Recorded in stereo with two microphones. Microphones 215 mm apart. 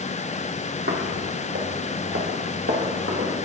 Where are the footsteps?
50° right (ahead or behind), 1.0 m; by 3.4 s 65° right (ahead or behind), 2.5 m.